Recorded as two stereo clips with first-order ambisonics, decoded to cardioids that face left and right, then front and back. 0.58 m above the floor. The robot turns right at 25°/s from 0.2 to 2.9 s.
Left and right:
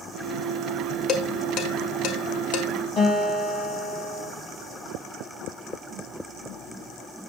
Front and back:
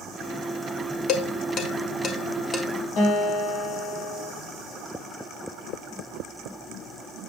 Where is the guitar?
35° left, 4.5 m.